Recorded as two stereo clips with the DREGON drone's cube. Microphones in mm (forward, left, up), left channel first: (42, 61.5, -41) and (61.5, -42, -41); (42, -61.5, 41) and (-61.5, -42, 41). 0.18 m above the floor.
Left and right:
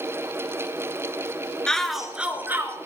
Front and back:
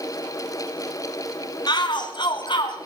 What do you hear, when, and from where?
1.7 s a shout: 20° left, 2.5 m; by 2.8 s 25° right, 2.5 m